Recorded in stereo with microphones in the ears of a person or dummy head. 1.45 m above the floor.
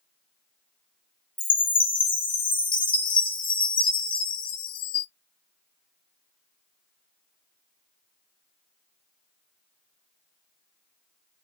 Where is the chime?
30° left (ahead or behind), 0.7 m.